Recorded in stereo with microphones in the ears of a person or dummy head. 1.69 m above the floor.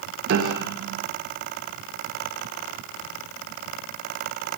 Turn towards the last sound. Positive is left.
turn(degrees=-75)  # may be behind; listen again after turning